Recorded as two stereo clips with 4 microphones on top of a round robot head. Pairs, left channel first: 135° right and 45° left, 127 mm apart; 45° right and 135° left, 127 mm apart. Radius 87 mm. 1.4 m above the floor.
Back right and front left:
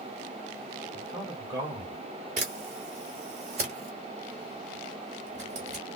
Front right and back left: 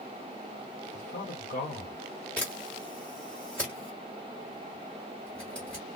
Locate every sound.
0.9 s a man speaking: 20° right, 1.4 m
2.4 s a camera shutter: 35° left, 1.3 m